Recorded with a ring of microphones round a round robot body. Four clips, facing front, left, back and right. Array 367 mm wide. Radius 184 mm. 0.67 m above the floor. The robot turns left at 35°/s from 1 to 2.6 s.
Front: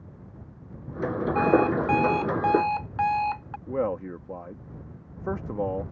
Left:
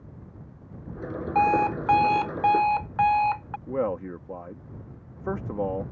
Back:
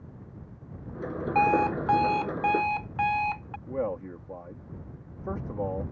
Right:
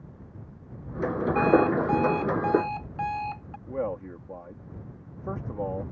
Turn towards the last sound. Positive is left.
turn(degrees=50)